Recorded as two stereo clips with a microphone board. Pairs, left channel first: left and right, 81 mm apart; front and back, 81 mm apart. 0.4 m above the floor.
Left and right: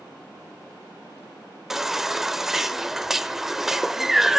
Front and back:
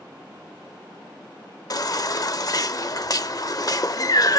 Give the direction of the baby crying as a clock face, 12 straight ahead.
12 o'clock.